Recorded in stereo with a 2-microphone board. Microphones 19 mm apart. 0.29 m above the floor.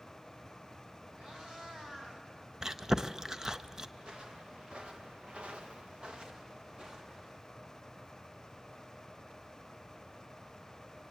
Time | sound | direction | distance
1.2 | a cat meowing | 45° right (ahead or behind) | 4 m
2.6 | chewing | 35° right (ahead or behind) | 0.7 m
4.0 | footsteps | 45° right (ahead or behind) | 2.5 m